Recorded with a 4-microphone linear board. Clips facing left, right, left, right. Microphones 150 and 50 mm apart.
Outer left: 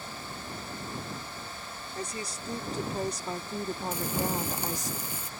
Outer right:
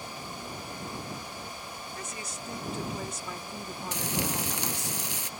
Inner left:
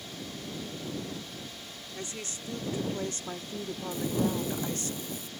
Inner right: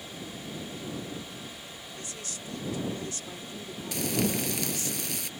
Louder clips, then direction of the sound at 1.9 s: Outer left 7 dB, inner left 4 dB; 35° left (ahead or behind).